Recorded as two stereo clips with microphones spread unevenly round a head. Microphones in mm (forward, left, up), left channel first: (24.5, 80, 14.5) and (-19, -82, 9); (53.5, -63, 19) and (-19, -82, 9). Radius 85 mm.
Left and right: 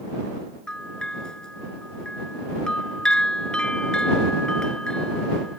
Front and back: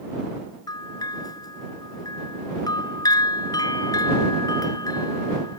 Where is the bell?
10° right.